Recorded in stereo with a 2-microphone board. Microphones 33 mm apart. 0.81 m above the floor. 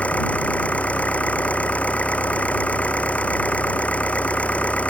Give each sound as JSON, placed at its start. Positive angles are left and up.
{"t": 0.0, "sound": "an engine running", "side_deg": 45}